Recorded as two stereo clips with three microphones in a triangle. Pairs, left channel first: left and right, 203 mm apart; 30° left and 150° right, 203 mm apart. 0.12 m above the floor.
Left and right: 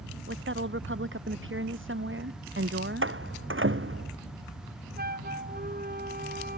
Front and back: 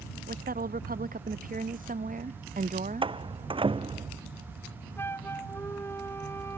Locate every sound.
0.3 s a woman speaking: 105° right; by 3.2 s 100° right
3.0 s a door slam: 85° right
5.0 s a flute: 50° right